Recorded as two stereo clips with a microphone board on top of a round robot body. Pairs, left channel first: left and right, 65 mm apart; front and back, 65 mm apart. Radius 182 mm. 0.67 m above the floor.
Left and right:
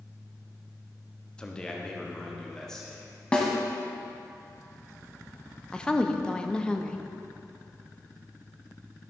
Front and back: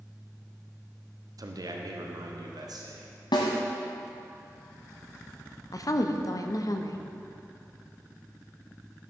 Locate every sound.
1.4 s a man speaking: 165° left, 1.2 m; by 3.1 s 170° left, 2 m
3.3 s a snare drum: 15° left, 0.9 m
5.7 s a woman speaking: 15° left, 1.0 m